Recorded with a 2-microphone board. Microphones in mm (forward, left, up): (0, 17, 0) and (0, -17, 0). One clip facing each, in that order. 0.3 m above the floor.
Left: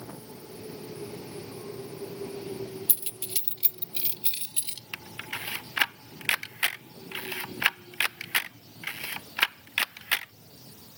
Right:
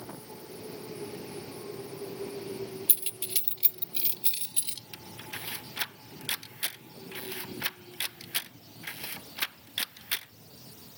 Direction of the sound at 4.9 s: 75° left (ahead or behind).